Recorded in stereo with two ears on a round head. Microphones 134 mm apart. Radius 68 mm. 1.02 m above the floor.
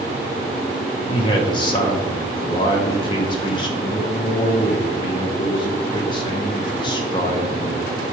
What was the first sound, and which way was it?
A man speaking, 30° left (ahead or behind).